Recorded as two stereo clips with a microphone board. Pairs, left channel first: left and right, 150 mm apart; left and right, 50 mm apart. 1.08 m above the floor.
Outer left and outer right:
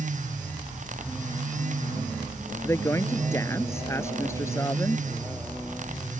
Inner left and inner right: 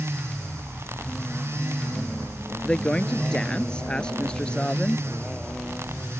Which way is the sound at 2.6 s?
20° left (ahead or behind).